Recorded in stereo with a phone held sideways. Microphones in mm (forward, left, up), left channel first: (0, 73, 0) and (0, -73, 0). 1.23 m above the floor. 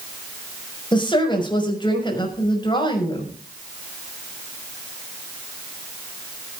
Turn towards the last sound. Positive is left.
turn(degrees=30)  # may be behind; listen again after turning